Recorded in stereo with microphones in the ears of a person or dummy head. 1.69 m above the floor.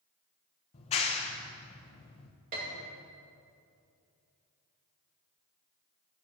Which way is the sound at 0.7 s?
30° left (ahead or behind).